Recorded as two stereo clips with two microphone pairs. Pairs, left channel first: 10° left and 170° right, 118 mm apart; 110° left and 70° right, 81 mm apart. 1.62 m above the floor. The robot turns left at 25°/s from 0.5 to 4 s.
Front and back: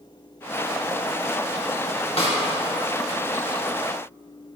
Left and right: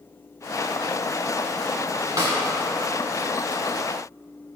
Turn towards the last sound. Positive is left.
turn(degrees=-70)